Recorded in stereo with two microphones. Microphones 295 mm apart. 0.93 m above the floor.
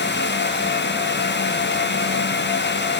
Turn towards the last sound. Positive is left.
No sound to turn to.